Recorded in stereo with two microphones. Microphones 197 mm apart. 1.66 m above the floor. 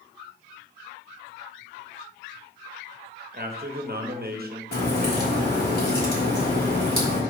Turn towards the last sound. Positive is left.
turn(degrees=50)  # may be behind; listen again after turning